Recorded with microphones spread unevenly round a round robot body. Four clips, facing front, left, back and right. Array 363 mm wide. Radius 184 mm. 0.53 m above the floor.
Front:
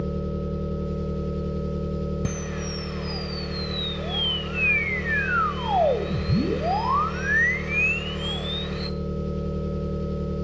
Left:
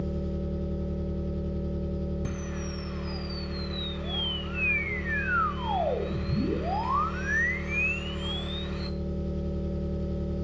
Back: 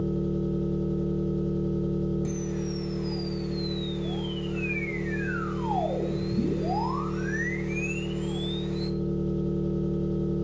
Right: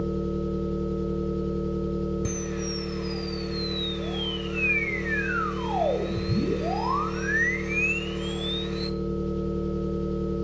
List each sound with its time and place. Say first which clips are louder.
0.0 s an engine running: right 5 dB, back 1 dB; 15° left, 6.5 m
2.2 s a camera shutter: right 5 dB, even; 10° right, 1.2 m